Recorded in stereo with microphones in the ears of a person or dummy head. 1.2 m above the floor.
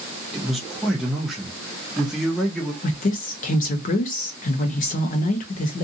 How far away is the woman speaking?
About 0.6 m.